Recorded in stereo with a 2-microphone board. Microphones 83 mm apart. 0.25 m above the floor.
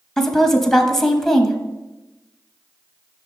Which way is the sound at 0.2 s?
5° left (ahead or behind).